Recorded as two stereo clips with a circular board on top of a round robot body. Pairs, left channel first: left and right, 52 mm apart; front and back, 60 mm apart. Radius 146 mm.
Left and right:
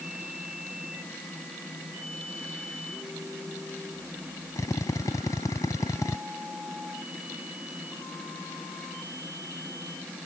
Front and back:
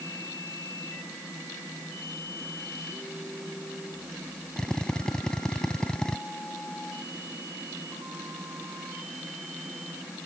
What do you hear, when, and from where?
4.6 s a drill: 80° left